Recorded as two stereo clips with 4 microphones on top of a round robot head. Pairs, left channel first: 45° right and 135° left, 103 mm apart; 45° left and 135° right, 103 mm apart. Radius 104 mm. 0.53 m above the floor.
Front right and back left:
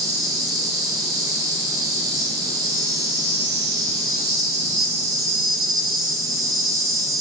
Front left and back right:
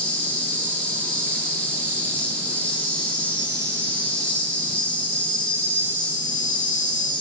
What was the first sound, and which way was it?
An insect, 115° left.